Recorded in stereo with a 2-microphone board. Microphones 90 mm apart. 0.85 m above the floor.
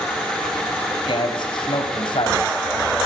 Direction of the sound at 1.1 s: 65° left (ahead or behind).